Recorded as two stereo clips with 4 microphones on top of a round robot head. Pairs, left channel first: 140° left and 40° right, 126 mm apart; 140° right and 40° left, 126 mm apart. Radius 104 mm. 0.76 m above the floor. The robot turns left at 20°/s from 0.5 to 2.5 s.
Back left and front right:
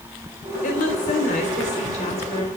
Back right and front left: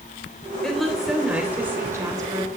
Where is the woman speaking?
135° left, 3.5 m; by 2.5 s 95° left, 3.5 m.